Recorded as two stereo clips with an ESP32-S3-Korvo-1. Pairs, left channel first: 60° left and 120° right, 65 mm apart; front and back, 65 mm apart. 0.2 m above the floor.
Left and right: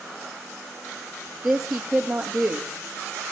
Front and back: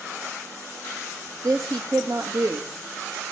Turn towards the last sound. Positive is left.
turn(degrees=155)